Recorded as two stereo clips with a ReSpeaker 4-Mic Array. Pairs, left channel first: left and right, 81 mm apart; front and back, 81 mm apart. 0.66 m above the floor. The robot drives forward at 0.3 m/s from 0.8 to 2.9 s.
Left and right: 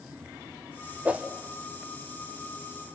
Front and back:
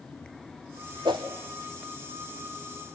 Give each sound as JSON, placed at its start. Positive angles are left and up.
{"t": 1.1, "sound": "a whoosh", "azimuth_deg": -160, "distance_m": 1.3}